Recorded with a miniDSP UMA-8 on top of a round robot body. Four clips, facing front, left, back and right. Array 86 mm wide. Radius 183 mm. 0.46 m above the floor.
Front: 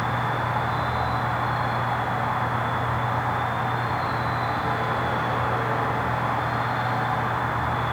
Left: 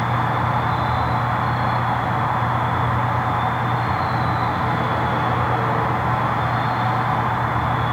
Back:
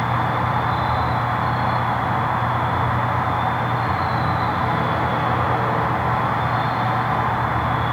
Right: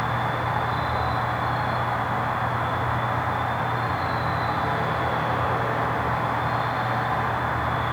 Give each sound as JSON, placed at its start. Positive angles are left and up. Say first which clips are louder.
{"t": 0.0, "sound": "an insect", "louder": "left 4 dB, back 4 dB", "azimuth_deg": 135, "distance_m": 1.6}